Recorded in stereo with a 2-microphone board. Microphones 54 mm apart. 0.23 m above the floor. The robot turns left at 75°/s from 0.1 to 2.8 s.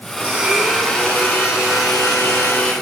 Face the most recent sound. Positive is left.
turn(degrees=20)